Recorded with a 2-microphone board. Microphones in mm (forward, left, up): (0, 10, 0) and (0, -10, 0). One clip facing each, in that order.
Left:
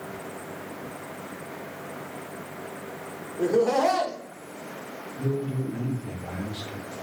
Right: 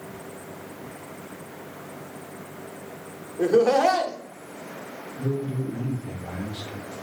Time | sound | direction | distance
3.4 | laughter | 80° right | 0.7 m
5.2 | a man speaking | 75° left (ahead or behind) | 0.7 m